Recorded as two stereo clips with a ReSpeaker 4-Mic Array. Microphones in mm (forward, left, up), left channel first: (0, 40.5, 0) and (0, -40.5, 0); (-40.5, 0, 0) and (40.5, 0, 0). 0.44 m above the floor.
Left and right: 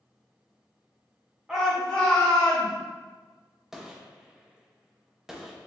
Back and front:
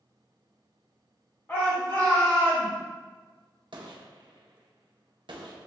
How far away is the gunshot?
About 0.6 m.